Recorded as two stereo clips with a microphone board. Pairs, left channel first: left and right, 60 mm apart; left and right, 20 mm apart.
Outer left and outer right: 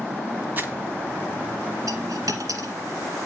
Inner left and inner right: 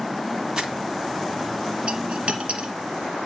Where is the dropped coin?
80° right, 2 m.